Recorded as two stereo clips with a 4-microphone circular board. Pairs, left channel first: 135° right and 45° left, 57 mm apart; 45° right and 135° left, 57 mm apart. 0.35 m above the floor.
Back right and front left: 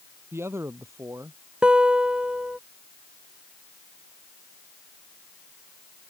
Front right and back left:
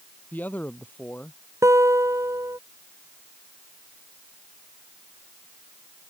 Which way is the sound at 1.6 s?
115° left.